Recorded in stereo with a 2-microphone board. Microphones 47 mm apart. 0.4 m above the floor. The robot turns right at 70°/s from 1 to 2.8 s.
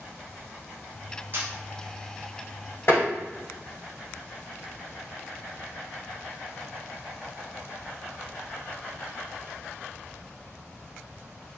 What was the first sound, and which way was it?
A camera shutter, 50° right (ahead or behind).